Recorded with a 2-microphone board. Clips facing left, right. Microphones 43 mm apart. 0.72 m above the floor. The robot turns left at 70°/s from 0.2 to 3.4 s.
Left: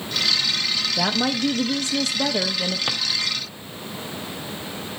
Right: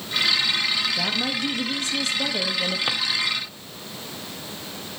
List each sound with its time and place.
1.0 s a woman speaking: 130° left, 0.6 m; by 2.8 s 5° left, 0.6 m
2.9 s a drawer: 5° right (ahead or behind), 0.6 m; by 3.0 s 5° left (ahead or behind), 0.6 m